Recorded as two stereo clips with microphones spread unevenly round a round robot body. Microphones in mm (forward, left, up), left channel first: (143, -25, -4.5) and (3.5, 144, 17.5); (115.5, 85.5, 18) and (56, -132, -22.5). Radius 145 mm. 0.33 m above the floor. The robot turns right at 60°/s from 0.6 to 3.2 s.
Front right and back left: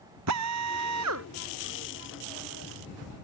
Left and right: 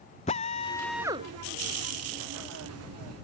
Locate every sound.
0.3 s a drill: 145° left; by 1.3 s 175° right